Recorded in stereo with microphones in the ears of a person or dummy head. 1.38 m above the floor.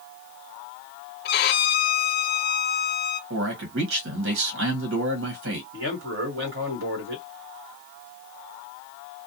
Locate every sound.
1.2 s a violin: 45° left (ahead or behind), 0.5 m
3.3 s a man speaking: 70° right (ahead or behind), 1.1 m
5.7 s a man speaking: 60° right (ahead or behind), 1.4 m